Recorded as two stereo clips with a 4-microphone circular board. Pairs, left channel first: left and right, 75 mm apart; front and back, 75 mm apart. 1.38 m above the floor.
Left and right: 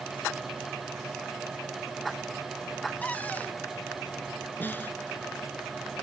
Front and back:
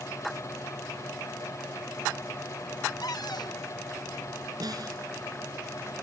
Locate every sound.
3.0 s a cupboard door: 20° left
4.6 s a snare drum: 155° left